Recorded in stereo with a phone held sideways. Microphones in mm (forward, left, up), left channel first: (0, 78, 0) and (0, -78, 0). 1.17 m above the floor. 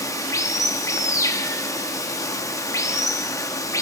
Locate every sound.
0.0 s running water: 20° left (ahead or behind), 0.9 m